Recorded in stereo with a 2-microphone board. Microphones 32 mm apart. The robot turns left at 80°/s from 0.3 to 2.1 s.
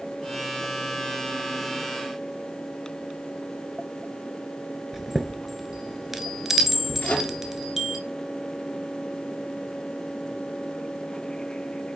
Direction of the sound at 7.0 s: 50° left (ahead or behind).